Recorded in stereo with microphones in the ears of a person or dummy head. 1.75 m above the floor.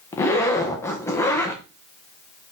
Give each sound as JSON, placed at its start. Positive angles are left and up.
{"t": 0.1, "sound": "a zipper", "side_deg": 25, "distance_m": 1.3}